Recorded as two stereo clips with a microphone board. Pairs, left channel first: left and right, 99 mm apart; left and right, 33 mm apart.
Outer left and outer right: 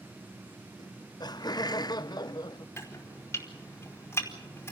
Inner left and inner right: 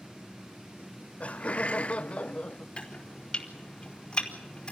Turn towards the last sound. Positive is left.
turn(degrees=25)  # may be behind; listen again after turning